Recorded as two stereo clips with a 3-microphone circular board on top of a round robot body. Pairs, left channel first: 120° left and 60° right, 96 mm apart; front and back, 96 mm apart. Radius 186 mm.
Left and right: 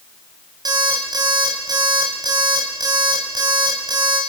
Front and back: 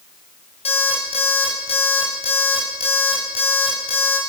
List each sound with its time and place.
0.7 s an alarm clock: 10° right, 5 m